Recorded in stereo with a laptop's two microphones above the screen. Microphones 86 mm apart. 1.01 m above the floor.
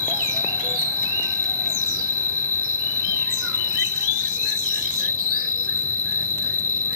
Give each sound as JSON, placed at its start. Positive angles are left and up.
{"t": 0.0, "sound": "an insect", "side_deg": -35}